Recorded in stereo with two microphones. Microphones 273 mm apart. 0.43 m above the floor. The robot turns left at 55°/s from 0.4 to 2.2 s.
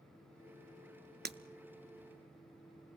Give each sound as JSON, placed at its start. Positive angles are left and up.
{"t": 1.2, "sound": "breaking glass", "side_deg": -35, "distance_m": 0.7}